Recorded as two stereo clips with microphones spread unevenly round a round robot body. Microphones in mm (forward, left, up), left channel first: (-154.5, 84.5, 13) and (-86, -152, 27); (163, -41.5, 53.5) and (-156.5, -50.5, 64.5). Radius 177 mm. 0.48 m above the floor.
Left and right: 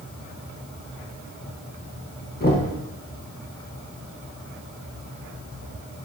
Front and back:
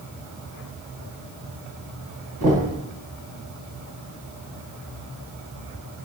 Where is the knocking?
155° left, 4 m.